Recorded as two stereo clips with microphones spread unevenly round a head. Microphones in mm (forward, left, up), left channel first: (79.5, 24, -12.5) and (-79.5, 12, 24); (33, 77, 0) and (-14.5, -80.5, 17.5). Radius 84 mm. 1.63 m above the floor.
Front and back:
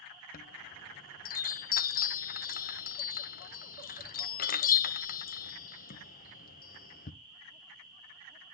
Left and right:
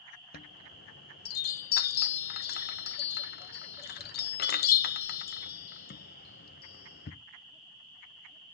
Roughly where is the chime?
Ahead left.